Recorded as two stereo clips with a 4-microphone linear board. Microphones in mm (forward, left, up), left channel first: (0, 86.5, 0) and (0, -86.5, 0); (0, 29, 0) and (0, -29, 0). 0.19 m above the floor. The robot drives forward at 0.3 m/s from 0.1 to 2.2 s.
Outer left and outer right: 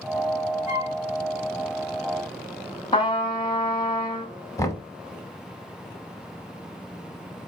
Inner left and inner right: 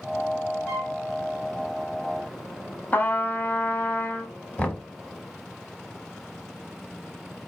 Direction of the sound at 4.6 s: 20° left (ahead or behind).